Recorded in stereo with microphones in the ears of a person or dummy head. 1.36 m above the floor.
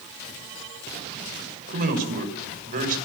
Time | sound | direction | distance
1.7 | a man speaking | 50° right (ahead or behind) | 6.5 m